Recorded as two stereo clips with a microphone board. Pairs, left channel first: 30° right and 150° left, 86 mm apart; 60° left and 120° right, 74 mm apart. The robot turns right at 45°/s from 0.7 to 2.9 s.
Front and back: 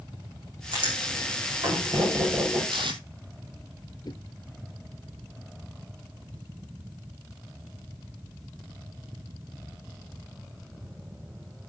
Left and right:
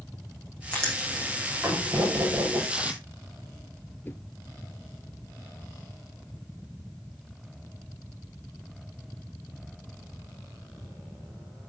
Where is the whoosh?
Straight ahead, 1.2 m.